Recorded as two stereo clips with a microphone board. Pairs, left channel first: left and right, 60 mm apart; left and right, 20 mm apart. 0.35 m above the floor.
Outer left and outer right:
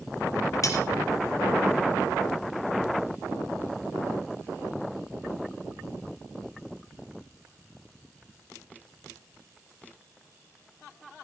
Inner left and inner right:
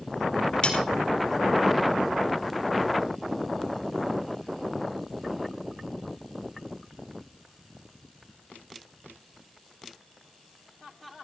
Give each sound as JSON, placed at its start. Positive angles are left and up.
{"t": 0.6, "sound": "cutlery clinking", "side_deg": 55, "distance_m": 5.0}